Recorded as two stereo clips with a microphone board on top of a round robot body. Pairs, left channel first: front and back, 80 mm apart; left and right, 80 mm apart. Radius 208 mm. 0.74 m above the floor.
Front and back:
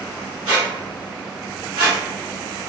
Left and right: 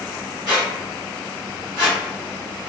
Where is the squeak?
135° right, 0.9 m.